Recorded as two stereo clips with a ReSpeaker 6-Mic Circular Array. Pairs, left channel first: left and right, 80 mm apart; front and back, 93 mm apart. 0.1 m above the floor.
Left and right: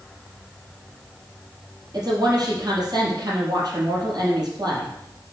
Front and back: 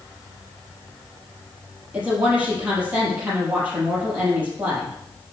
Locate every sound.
1.9 s a woman speaking: 110° right, 3.5 m